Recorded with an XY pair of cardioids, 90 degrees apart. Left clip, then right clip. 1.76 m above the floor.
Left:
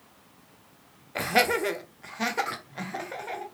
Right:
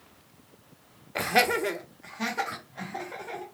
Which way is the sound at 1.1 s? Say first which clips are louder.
Even; 10° right.